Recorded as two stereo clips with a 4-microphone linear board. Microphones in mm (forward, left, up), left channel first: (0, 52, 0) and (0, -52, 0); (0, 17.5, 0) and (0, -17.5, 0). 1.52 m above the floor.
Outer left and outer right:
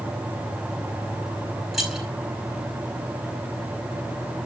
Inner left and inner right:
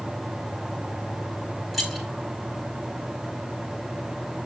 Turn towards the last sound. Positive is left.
turn(degrees=0)  # may be behind; listen again after turning